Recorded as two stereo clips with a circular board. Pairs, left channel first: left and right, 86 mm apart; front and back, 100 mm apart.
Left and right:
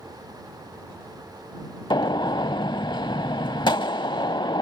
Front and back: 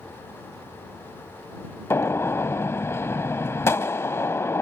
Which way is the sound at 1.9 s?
65° left.